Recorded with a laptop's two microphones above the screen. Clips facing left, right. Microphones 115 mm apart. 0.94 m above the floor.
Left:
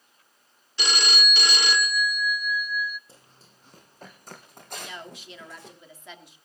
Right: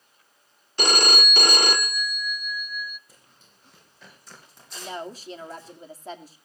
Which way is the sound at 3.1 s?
30° left (ahead or behind).